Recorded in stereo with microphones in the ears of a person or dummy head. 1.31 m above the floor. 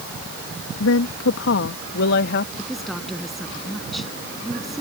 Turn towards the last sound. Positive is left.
turn(degrees=0)  # may be behind; listen again after turning